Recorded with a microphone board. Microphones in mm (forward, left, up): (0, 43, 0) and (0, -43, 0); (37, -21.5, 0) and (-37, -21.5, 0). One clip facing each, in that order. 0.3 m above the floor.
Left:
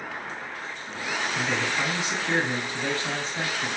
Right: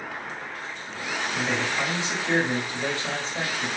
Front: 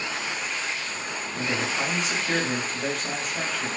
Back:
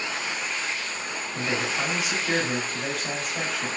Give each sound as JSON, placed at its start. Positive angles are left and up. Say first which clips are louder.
{"t": 1.3, "sound": "a man speaking", "louder": "right 1 dB, even", "azimuth_deg": -105, "distance_m": 1.0}